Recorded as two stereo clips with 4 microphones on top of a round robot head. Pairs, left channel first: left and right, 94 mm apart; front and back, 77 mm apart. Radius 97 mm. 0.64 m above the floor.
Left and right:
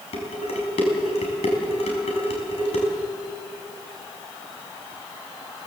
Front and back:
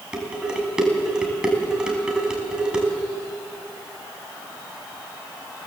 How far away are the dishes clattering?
About 4.5 m.